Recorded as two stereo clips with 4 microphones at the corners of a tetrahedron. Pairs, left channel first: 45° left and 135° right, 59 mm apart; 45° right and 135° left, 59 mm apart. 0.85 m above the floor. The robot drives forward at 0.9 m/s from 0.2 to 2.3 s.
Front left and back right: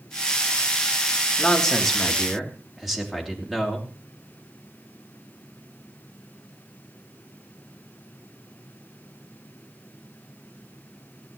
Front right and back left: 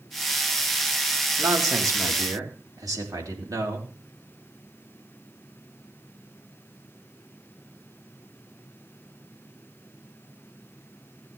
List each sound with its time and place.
1.4 s a man speaking: 125° left, 2.0 m; by 3.9 s 140° left, 2.5 m